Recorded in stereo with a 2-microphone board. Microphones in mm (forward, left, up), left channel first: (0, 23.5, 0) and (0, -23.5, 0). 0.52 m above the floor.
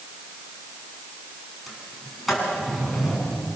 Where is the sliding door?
Centre (ahead or behind), 6 m.